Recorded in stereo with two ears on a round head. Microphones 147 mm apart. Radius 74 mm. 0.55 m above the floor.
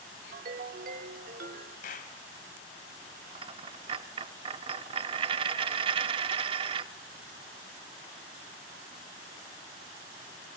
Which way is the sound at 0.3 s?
55° right (ahead or behind).